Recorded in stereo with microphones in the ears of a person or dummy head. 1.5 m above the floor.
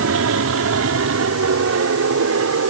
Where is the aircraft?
70° right (ahead or behind); by 2.7 s 75° right (ahead or behind).